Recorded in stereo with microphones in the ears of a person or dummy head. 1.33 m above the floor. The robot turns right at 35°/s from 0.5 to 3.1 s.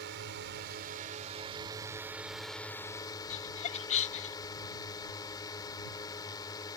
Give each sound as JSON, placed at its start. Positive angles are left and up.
{"t": 0.0, "sound": "a drone", "azimuth_deg": -65}
{"t": 3.3, "sound": "laughter", "side_deg": 40}